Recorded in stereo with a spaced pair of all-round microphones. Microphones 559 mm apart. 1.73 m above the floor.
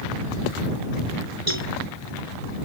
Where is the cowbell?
85° right.